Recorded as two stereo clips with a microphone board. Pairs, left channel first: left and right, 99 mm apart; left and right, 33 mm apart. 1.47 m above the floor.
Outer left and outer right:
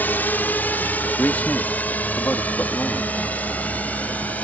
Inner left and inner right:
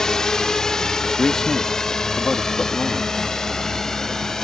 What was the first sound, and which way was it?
A drone, 20° left (ahead or behind).